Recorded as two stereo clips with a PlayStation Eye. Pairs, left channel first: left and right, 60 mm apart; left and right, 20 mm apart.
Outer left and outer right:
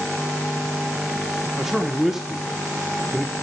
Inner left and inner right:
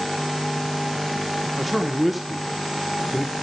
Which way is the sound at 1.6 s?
5° right (ahead or behind).